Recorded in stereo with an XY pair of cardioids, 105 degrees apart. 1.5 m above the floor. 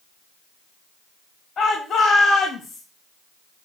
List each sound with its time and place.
1.6 s a shout: 55° left, 2.5 m